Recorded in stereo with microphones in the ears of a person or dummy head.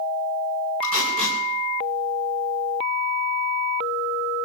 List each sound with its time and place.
0.8 s tape being pulled: 55° right (ahead or behind), 6 m